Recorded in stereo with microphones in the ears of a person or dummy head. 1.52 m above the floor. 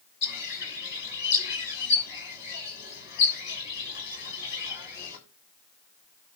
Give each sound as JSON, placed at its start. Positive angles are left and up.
{"t": 0.2, "sound": "a bird", "side_deg": 60, "distance_m": 6.5}